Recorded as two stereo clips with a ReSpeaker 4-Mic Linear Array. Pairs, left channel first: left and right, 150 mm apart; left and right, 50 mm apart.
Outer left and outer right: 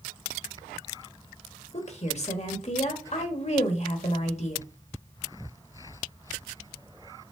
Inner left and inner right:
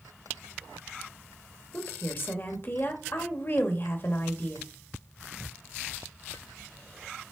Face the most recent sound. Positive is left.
turn(degrees=45)  # may be behind; listen again after turning